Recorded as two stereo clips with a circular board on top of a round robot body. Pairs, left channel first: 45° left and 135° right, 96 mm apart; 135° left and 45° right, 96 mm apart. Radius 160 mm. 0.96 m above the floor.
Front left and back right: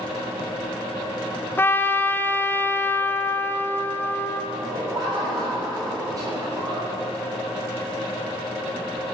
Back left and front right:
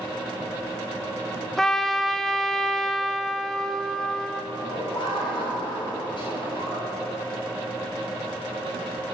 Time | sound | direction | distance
1.6 | a trumpet | 55° left | 0.9 m
4.5 | laughter | 175° left | 4 m